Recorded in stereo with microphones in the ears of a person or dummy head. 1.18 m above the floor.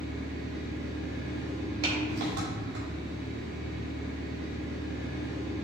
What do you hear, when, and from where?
0.0 s an engine running: 60° right (ahead or behind), 2 m
1.8 s a clap: 35° right (ahead or behind), 2 m